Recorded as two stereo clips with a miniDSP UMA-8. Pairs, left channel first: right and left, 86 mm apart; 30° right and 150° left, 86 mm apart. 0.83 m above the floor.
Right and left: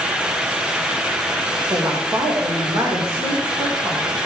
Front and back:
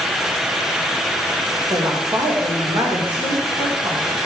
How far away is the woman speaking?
About 3 m.